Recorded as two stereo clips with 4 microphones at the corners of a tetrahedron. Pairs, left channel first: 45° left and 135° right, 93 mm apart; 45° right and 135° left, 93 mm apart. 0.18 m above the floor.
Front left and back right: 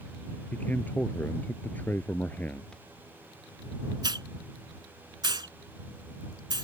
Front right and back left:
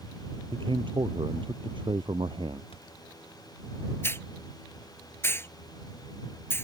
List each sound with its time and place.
0.5 s a man speaking: 115° left
2.7 s a thud: 40° right
4.0 s a hiss: 105° right